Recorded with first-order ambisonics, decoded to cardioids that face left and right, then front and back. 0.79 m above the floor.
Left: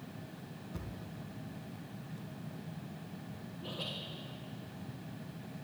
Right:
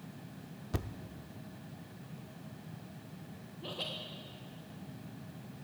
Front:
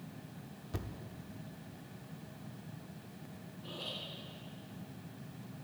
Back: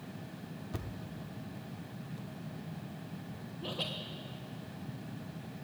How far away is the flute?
I don't hear a flute.